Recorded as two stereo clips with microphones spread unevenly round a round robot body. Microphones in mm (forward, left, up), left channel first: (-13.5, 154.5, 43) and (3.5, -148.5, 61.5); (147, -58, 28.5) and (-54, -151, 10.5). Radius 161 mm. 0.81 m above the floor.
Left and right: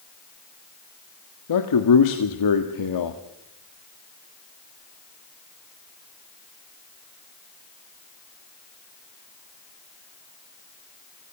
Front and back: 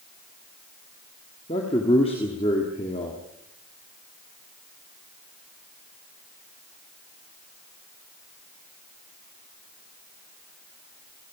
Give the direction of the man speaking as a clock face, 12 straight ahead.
9 o'clock.